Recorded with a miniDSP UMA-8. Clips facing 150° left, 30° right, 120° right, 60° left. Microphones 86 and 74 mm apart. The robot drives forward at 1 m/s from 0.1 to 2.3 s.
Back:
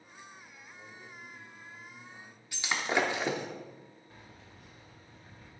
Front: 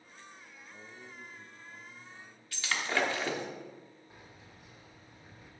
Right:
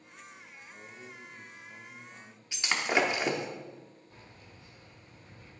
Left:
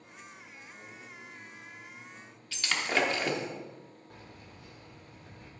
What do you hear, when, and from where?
0.7 s a man speaking: 45° right, 1.1 m; by 2.4 s 140° right, 1.2 m
2.5 s breaking glass: 165° right, 0.8 m
4.1 s keys jangling: 45° left, 2.5 m